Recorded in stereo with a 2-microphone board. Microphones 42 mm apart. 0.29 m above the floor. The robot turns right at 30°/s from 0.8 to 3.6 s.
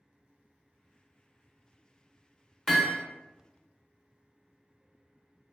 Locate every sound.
2.7 s hammering: 5° left (ahead or behind), 0.5 m; by 3.0 s 10° left (ahead or behind), 0.5 m